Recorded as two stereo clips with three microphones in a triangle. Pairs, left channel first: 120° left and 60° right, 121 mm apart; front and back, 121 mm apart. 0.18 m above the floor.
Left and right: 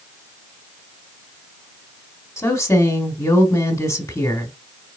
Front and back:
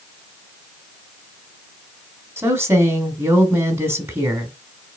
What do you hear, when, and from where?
2.4 s a woman speaking: 140° left, 1.2 m